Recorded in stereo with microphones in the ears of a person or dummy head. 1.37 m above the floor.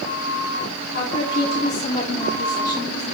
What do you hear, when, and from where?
0.9 s a woman speaking: 55° left (ahead or behind), 3.5 m; by 3.0 s 25° left (ahead or behind), 2.5 m